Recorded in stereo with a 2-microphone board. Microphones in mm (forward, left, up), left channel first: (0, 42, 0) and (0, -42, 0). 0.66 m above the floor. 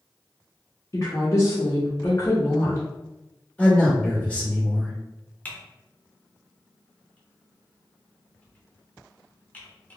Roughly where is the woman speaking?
Left.